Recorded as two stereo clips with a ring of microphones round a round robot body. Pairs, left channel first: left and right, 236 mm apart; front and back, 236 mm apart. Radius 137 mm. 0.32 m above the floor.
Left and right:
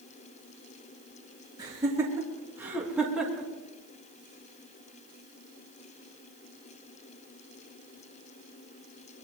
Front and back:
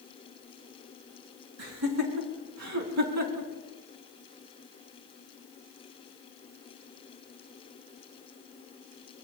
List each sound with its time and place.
1.6 s laughter: 165° right, 3.5 m; by 3.5 s straight behind, 3 m